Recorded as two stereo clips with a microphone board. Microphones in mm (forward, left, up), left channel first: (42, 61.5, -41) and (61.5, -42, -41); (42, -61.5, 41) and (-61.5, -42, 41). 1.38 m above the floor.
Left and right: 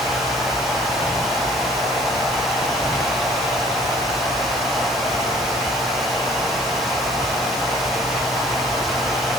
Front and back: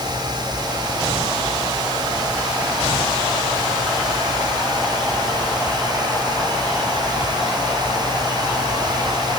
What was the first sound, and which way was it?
Only background noise.